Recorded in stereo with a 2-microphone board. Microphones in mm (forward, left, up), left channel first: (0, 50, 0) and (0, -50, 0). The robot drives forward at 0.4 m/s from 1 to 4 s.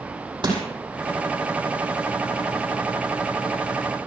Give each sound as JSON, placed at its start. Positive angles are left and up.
{"t": 0.4, "sound": "crushing", "side_deg": -50, "distance_m": 5.0}